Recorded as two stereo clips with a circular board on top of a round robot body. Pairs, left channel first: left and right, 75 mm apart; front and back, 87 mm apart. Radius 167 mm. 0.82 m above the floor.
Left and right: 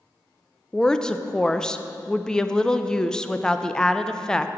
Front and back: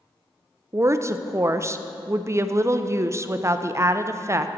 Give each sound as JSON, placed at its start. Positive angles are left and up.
{"t": 0.7, "sound": "a woman speaking", "azimuth_deg": 160, "distance_m": 0.6}